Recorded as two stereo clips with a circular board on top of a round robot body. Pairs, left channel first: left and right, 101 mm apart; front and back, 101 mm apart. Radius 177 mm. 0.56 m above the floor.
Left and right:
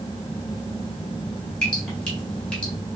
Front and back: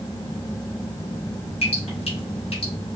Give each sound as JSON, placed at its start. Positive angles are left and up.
{"t": 1.6, "sound": "dripping", "azimuth_deg": 10, "distance_m": 2.0}